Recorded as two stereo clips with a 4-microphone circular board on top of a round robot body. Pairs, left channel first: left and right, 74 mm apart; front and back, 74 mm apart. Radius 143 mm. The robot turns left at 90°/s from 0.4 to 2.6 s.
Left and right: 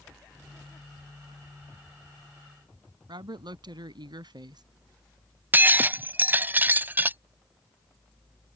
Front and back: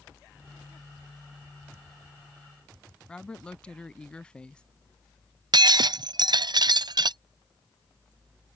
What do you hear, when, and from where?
3.1 s a woman speaking: 80° right
5.5 s breaking glass: 160° right